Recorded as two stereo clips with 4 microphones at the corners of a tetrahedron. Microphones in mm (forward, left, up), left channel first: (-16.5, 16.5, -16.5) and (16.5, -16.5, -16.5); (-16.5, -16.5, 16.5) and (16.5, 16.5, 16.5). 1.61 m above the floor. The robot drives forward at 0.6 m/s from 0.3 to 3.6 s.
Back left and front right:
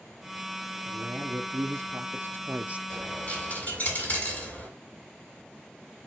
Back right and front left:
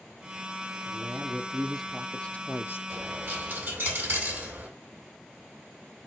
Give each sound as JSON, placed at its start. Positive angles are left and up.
{"t": 0.8, "sound": "a man speaking", "azimuth_deg": -25, "distance_m": 1.2}
{"t": 2.9, "sound": "a dropped coin", "azimuth_deg": 75, "distance_m": 2.5}